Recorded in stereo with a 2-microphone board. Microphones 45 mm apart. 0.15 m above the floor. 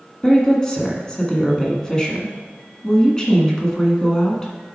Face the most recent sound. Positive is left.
turn(degrees=15)  # may be behind; listen again after turning